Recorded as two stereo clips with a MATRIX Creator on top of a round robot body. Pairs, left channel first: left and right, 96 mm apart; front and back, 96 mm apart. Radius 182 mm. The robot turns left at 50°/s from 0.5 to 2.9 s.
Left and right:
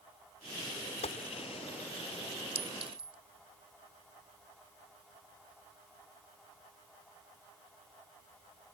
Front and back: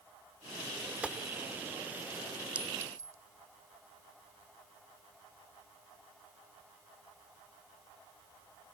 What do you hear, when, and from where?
1.0 s a gunshot: 105° left; by 1.2 s 90° left
2.5 s a clink: 100° right; by 3.2 s 120° right